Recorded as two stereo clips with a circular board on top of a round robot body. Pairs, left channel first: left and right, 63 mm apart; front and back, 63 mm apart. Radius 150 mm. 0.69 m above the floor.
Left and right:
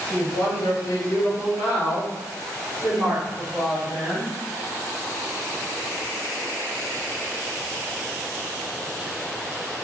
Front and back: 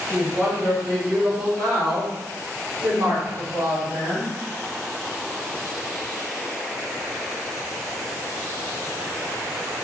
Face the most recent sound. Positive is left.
turn(degrees=175)